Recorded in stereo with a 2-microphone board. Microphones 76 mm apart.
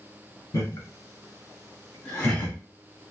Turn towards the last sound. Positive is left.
turn(degrees=25)  # may be behind; listen again after turning